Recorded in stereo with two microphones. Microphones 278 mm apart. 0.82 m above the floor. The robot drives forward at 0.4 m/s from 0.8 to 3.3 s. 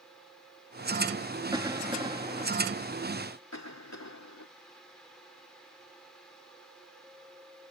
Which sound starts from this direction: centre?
A cough, at 1.5 s.